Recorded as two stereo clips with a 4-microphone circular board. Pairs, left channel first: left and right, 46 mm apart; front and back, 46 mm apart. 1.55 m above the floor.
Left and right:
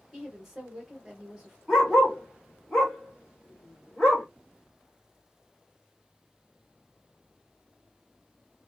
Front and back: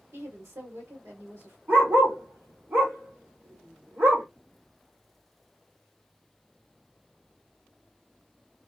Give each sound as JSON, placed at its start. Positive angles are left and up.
{"t": 0.1, "sound": "a woman speaking", "azimuth_deg": -175, "distance_m": 1.8}
{"t": 1.7, "sound": "a dog barking", "azimuth_deg": 175, "distance_m": 2.0}